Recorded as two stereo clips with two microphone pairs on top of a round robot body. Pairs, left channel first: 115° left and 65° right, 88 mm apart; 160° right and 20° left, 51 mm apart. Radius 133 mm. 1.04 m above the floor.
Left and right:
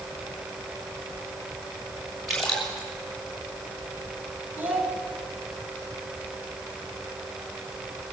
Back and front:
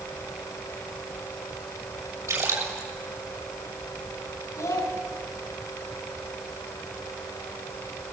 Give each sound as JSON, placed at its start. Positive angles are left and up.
{"t": 2.3, "sound": "a splash", "azimuth_deg": 30, "distance_m": 6.5}
{"t": 4.6, "sound": "a child speaking", "azimuth_deg": -140, "distance_m": 4.0}